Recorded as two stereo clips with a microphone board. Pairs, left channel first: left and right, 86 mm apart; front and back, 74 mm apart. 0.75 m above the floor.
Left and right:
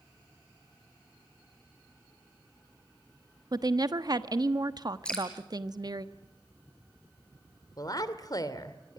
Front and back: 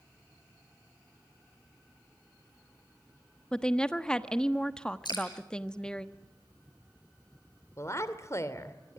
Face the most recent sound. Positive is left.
turn(degrees=50)